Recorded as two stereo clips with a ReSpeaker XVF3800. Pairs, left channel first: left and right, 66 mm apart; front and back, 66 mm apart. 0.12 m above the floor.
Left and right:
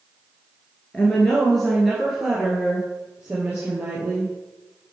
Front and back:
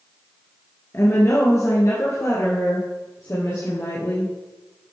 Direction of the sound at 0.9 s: 20° left.